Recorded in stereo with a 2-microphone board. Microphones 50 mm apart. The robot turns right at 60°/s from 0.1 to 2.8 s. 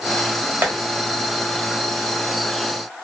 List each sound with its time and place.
0.6 s tapping: 40° right (ahead or behind), 1.1 m; by 0.7 s 45° right (ahead or behind), 1.1 m